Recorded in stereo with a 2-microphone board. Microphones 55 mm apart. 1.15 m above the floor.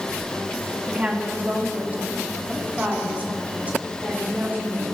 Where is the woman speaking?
25° right (ahead or behind), 2.5 m; by 4.8 s 30° right (ahead or behind), 5.5 m.